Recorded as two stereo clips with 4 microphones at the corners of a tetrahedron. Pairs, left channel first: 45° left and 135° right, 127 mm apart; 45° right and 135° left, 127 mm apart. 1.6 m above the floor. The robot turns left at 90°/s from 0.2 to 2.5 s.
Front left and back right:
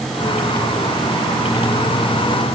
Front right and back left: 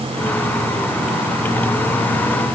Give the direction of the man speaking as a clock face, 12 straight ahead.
I don't hear a man speaking.